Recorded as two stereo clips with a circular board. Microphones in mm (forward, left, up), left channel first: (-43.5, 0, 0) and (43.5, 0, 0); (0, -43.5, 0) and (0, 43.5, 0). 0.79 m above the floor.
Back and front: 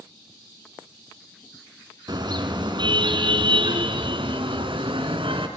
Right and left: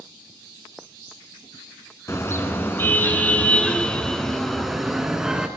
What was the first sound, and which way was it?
A car horn, 35° right.